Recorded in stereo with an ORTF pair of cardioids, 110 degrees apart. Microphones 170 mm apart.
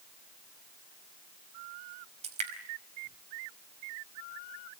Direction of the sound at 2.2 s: 40° right.